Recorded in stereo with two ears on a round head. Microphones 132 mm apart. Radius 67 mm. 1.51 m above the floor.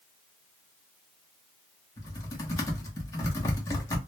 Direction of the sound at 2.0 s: 25° left (ahead or behind).